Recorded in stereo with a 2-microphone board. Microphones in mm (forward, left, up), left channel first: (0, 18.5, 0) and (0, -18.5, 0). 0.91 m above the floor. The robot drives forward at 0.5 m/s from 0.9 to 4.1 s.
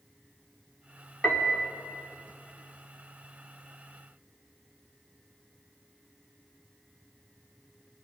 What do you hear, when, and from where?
1.2 s a piano: 30° left (ahead or behind), 2.5 m; by 1.7 s 25° left (ahead or behind), 2.5 m